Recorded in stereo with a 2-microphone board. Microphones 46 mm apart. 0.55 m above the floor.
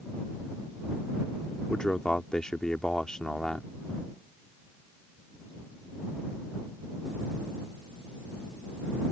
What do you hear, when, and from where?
1.7 s a man speaking: 15° left (ahead or behind)